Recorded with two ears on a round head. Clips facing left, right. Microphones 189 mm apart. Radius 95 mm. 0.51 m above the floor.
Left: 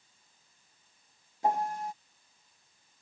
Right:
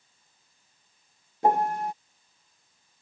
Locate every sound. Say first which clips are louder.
1.4 s a piano: right 6 dB; 50° right (ahead or behind)